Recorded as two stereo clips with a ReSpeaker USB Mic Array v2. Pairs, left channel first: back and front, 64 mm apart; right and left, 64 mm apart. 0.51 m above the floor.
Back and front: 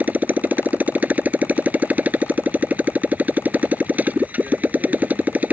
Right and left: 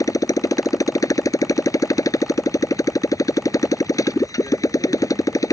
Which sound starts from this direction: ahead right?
A motorcycle, at 0.0 s.